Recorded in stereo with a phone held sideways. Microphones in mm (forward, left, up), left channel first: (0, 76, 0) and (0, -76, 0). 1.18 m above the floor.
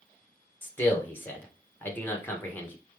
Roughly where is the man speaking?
Centre.